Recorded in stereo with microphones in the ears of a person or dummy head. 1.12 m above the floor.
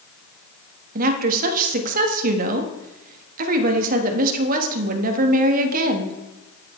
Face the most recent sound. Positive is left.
turn(degrees=-45)  # may be behind; listen again after turning